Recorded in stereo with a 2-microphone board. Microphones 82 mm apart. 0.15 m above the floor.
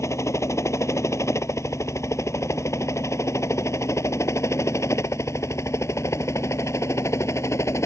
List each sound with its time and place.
0.0 s a helicopter: 35° left (ahead or behind)